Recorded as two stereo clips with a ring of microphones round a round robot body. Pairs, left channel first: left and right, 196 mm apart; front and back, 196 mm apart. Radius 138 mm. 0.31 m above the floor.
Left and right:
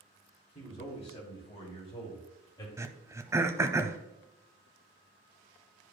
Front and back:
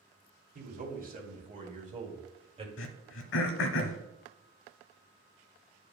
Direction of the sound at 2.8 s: 15° right.